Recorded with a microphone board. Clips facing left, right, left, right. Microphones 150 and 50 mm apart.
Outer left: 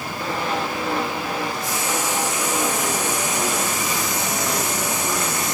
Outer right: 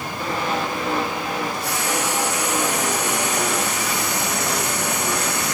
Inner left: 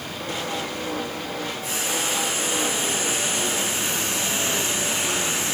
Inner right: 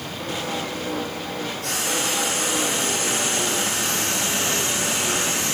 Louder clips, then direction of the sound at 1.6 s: Outer right 1 dB, inner right 2 dB; 75° right (ahead or behind).